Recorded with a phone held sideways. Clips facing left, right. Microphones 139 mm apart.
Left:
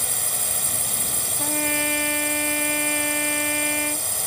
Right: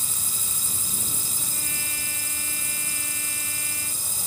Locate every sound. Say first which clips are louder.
0.0 s a drone: left 8 dB; 80° left
1.4 s a trumpet: left 14 dB; 75° left (ahead or behind)